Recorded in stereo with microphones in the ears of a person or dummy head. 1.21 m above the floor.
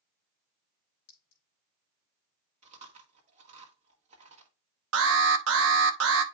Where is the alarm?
70° right (ahead or behind), 1.0 m.